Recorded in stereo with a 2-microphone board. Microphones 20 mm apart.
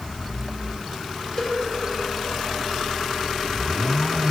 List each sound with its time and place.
1.4 s a cowbell: 40° left (ahead or behind), 1.7 m